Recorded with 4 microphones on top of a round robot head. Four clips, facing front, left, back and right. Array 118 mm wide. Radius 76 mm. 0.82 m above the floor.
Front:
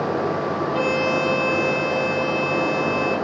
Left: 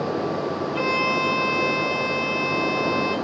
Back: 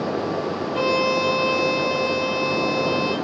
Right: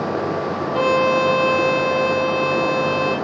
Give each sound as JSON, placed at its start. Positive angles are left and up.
{"t": 0.7, "sound": "a violin", "azimuth_deg": -70, "distance_m": 3.5}